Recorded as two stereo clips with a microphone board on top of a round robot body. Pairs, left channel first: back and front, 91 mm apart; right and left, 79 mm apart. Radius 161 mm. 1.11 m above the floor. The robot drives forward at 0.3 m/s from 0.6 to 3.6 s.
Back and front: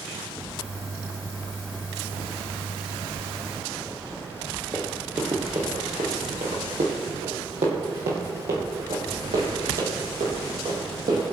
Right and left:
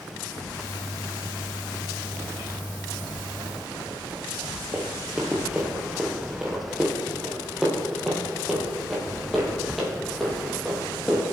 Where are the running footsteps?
40° left, 1.1 m; by 11.2 s straight ahead, 4 m.